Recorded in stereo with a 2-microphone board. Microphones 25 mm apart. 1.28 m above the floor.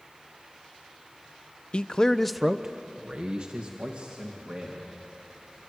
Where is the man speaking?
50° left (ahead or behind), 0.8 m; by 4.9 s 50° right (ahead or behind), 3 m.